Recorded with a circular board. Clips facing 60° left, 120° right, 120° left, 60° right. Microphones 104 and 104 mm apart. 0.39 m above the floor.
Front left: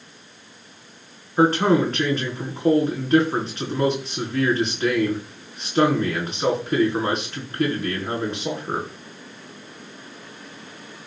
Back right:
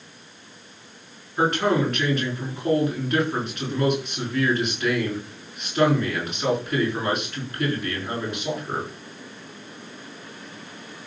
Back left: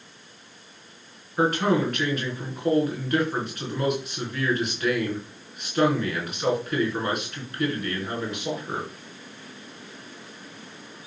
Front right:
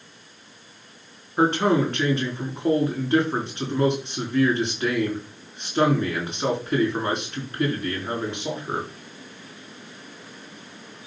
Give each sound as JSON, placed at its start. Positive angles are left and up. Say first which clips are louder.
{"t": 1.4, "sound": "a man speaking", "louder": "front left 4 dB, front right 2 dB", "azimuth_deg": 5, "distance_m": 4.0}